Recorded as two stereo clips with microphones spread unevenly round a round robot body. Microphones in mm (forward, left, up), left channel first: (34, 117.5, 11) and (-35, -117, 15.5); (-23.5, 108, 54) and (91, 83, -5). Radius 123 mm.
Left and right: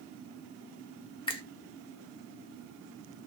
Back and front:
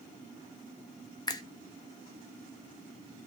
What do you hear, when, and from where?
1.3 s a finger snap: 80° left, 0.6 m